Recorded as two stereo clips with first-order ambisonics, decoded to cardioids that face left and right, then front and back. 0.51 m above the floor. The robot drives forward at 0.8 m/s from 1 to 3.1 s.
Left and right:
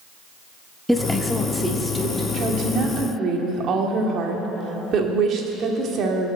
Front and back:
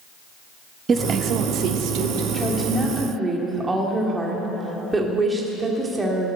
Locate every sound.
0.9 s a woman speaking: straight behind, 0.6 m
2.3 s a woman speaking: 70° right, 1.5 m; by 6.3 s 110° right, 1.5 m